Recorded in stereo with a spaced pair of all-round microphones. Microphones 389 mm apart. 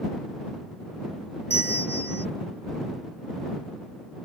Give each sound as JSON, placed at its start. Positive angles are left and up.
{"t": 1.5, "sound": "a bell", "side_deg": 25}